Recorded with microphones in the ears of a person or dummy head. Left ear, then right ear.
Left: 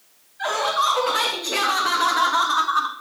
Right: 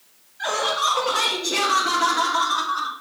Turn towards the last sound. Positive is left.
turn(degrees=40)  # may be behind; listen again after turning